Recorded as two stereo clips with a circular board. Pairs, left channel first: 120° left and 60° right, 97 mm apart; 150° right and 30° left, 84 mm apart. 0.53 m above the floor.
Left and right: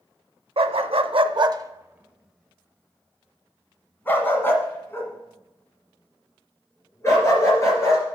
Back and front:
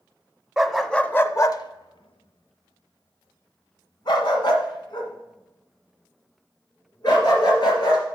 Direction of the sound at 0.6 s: 60° right.